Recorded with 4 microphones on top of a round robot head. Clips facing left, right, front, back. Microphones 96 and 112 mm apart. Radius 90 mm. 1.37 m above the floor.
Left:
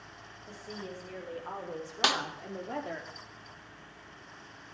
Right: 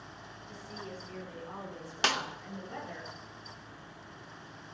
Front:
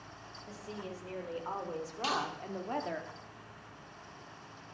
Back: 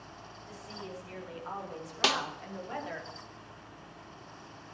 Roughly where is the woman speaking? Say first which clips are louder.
Left 3 dB, front 1 dB; ahead left.